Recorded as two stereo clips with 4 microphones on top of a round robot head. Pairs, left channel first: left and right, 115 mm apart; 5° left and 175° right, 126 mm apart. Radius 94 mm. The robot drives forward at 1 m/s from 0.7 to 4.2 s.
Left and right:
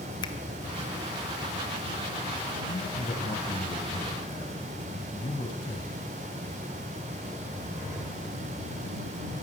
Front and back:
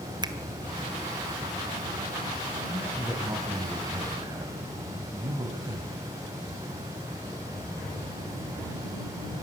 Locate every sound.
0.2 s a finger snap: 140° left, 1.5 m
2.7 s a man speaking: 105° left, 2.5 m; by 6.0 s 135° left, 3 m